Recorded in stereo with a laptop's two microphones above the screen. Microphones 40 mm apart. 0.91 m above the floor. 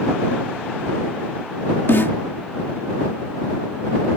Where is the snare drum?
65° left (ahead or behind).